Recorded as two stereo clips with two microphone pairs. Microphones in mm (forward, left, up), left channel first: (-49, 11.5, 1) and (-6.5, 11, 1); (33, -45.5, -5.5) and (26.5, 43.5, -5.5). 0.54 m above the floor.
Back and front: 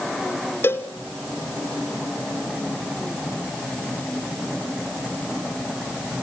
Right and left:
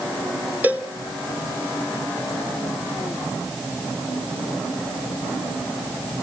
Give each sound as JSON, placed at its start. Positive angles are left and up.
{"t": 0.6, "sound": "a cowbell", "azimuth_deg": 165, "distance_m": 1.7}